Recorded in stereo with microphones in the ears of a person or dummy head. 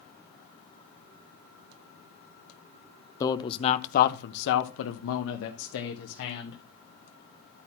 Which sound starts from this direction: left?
A man speaking, at 3.2 s.